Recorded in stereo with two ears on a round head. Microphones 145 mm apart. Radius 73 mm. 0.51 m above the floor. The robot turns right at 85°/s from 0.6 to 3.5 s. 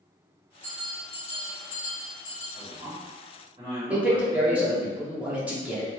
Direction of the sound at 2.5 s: 130° right.